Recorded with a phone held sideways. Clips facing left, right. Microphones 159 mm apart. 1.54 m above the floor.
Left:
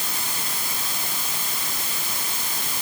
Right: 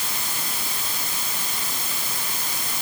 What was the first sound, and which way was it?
Only background noise.